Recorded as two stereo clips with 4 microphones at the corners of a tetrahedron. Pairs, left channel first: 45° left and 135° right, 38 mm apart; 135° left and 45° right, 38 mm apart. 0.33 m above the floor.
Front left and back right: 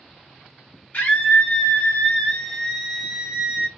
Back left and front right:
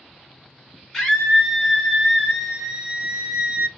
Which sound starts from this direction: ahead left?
A scream, at 0.9 s.